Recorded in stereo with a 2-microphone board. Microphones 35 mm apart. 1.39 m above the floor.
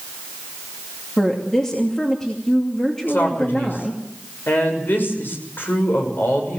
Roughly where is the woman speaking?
Centre.